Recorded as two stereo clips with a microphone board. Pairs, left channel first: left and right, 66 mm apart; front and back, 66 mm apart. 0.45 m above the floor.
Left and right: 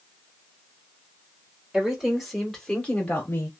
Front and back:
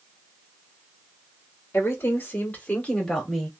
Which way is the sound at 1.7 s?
15° right.